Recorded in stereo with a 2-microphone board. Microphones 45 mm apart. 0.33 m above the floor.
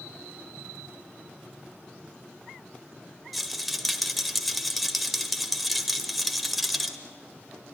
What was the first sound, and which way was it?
A rattle, centre (ahead or behind).